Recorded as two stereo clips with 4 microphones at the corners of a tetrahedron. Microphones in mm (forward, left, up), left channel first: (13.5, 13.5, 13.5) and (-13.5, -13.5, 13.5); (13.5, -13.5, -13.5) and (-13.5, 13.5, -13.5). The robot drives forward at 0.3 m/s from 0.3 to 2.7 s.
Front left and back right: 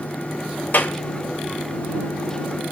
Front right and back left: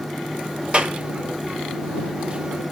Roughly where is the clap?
Left.